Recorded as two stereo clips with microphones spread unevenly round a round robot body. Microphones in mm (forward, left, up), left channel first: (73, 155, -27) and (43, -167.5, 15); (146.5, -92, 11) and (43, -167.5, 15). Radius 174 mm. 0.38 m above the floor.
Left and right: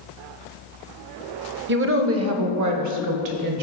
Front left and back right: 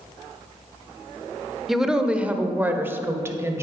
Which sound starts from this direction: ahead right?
A woman speaking, at 1.7 s.